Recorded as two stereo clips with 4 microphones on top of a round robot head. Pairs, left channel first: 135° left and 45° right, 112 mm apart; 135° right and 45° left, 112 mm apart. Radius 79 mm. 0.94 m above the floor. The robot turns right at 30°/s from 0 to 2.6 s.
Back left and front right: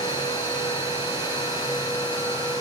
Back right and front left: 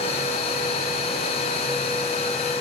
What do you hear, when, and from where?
Only background noise.